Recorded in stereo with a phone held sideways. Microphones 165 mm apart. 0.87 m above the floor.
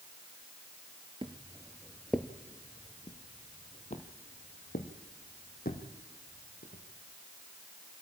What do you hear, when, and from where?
1.2 s footsteps: 35° right (ahead or behind), 0.9 m; by 6.8 s 65° left (ahead or behind), 3 m